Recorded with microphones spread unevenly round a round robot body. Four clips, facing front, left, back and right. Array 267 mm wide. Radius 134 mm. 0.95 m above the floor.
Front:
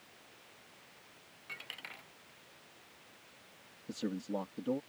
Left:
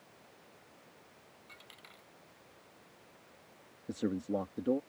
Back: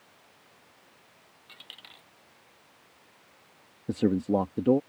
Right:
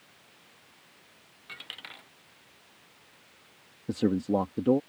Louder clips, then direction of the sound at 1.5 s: Right 12 dB, front 5 dB; 70° right.